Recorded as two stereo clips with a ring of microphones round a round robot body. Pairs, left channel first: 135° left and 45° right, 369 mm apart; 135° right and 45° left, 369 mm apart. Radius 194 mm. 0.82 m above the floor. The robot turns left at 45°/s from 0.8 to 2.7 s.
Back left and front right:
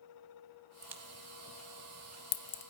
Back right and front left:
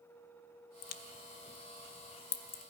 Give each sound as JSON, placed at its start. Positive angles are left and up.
{"t": 0.8, "sound": "a crack", "azimuth_deg": -125, "distance_m": 0.7}